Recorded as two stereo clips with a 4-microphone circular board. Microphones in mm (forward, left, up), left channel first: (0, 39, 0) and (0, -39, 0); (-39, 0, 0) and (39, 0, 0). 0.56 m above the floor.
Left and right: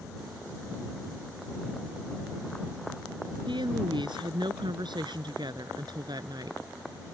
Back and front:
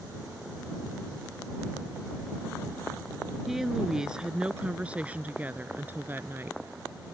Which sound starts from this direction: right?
A woman speaking, at 3.5 s.